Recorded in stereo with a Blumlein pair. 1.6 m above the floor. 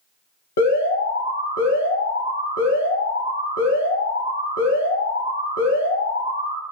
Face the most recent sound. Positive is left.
turn(degrees=60)